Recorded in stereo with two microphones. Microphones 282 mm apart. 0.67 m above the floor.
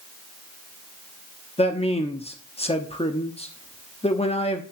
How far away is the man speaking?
About 0.8 m.